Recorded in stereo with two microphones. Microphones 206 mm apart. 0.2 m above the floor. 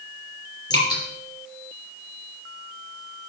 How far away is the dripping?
About 4 m.